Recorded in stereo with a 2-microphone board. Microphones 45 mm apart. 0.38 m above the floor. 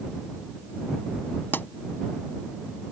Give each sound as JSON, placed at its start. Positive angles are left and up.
{"t": 1.5, "sound": "a pop", "side_deg": 50}